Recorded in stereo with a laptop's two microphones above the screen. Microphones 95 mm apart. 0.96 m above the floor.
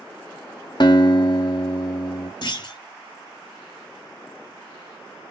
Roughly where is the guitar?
Left.